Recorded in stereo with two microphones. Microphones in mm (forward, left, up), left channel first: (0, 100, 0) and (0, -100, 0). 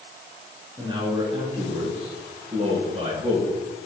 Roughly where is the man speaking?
Right.